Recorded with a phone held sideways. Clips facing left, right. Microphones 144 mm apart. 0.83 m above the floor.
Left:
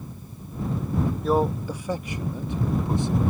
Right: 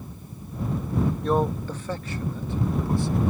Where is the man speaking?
5° left (ahead or behind); by 3.3 s 20° left (ahead or behind).